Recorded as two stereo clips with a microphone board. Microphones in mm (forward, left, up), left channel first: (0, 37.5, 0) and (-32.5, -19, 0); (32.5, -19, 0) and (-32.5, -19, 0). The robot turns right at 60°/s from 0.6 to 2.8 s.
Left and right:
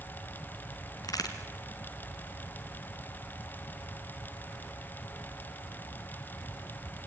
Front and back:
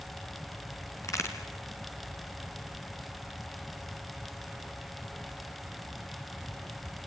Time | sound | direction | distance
1.0 | a crack | 35° left | 3 m